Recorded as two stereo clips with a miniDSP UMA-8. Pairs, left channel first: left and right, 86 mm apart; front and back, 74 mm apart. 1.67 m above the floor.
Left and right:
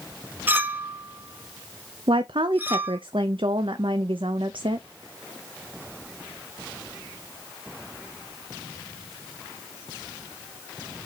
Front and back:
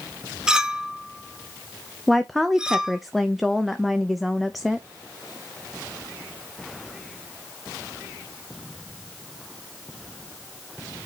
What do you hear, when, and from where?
0.5 s a clink: 115° right, 0.7 m
2.1 s a woman speaking: 90° right, 0.5 m